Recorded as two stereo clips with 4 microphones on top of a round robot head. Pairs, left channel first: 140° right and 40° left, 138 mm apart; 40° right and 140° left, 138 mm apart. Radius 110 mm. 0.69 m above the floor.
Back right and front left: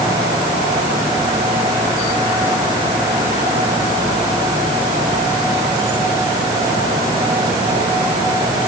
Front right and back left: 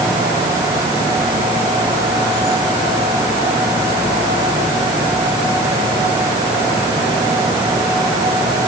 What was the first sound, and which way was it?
Only background noise.